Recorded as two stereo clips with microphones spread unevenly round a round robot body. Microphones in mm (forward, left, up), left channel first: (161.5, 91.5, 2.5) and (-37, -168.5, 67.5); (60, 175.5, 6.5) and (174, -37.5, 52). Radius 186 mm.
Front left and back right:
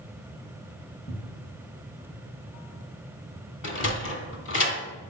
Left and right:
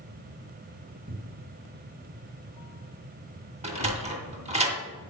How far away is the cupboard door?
About 1.6 m.